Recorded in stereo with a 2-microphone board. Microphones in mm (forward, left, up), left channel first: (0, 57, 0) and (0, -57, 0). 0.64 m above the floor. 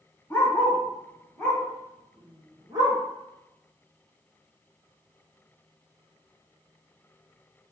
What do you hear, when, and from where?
0.3 s a dog barking: 20° left (ahead or behind), 1.6 m; by 3.0 s 45° right (ahead or behind), 0.8 m